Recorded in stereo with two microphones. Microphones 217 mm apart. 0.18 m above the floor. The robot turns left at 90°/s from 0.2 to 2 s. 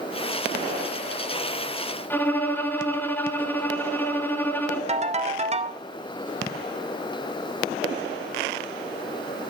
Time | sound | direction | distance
2.1 | a violin | 10° left (ahead or behind) | 0.7 m
4.9 | a ringtone | 30° right (ahead or behind) | 0.5 m